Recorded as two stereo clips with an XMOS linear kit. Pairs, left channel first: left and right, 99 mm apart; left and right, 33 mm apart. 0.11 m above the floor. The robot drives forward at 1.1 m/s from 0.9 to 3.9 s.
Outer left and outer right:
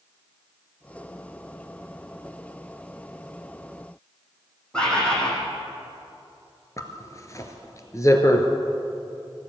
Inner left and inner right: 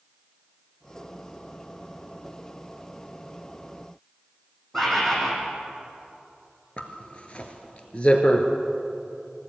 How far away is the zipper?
About 2.0 m.